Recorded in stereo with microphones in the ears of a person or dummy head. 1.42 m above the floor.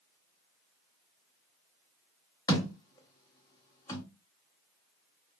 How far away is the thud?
About 1.1 m.